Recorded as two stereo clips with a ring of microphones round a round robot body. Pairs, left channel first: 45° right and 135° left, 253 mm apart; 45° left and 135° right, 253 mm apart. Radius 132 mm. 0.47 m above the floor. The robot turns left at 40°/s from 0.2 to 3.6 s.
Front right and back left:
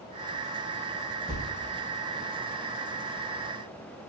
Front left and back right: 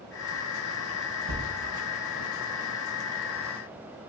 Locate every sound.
1.3 s a thud: 145° right, 2.5 m; by 1.5 s 155° right, 2.5 m